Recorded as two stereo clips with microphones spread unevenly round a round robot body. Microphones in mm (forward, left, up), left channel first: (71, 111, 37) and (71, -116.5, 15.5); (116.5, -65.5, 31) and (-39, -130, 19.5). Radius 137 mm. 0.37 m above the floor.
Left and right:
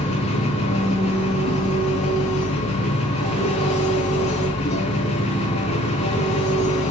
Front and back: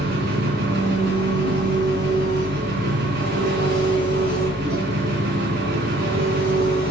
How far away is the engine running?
About 3.5 m.